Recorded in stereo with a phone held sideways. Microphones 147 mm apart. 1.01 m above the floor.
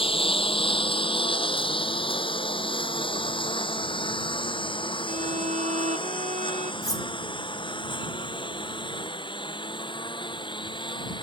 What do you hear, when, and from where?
0.0 s a lawn mower: 40° left (ahead or behind); by 11.2 s 35° left (ahead or behind)
5.1 s a violin: 50° right (ahead or behind)
6.8 s cutlery clinking: 25° left (ahead or behind)